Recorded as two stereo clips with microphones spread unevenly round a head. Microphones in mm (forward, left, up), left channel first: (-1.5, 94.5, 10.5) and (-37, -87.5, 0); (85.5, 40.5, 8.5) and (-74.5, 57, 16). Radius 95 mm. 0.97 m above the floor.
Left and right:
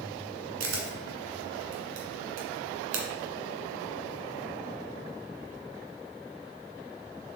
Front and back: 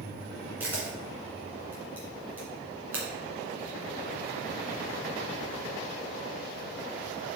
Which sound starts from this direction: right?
A camera shutter, at 0.6 s.